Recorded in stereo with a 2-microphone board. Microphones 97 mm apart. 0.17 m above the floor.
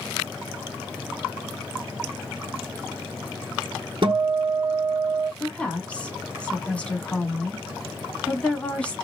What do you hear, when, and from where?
4.0 s a guitar: 55° right (ahead or behind), 0.7 m
5.4 s a woman speaking: 15° left (ahead or behind), 1.2 m